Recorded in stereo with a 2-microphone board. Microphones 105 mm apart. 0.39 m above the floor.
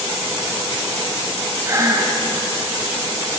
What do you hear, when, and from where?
1.6 s breathing: 30° right (ahead or behind), 0.9 m